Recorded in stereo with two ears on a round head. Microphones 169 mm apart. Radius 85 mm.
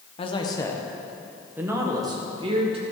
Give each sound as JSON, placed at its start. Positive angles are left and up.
{"t": 0.2, "sound": "a man speaking", "side_deg": 30, "distance_m": 1.6}